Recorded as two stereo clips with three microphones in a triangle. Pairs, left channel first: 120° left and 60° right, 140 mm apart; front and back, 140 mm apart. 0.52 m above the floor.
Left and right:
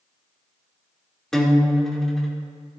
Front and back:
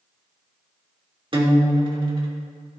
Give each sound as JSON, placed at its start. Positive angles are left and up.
{"t": 1.3, "sound": "a guitar", "azimuth_deg": -155, "distance_m": 1.6}